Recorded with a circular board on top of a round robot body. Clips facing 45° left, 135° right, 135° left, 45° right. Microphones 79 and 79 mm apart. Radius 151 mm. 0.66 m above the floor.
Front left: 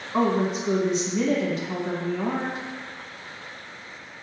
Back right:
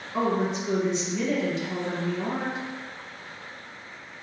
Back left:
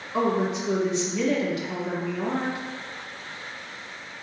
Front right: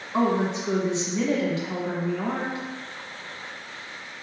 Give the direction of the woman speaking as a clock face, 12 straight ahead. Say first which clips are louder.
Front left 3 dB, front right 1 dB; 12 o'clock.